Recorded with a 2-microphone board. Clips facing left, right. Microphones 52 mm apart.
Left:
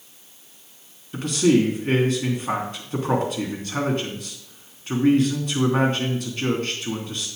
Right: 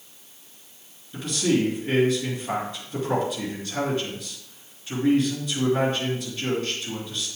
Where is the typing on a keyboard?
I don't hear typing on a keyboard.